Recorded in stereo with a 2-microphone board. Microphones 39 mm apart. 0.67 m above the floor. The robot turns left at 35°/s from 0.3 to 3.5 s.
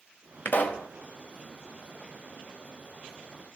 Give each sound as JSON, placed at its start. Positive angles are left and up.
{"t": 0.5, "sound": "a pop", "side_deg": 55, "distance_m": 1.4}